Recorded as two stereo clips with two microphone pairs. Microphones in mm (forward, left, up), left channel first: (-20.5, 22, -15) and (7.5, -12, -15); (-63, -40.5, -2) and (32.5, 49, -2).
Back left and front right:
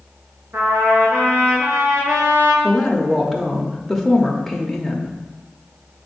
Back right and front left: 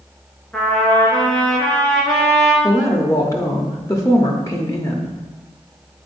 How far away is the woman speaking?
About 0.8 m.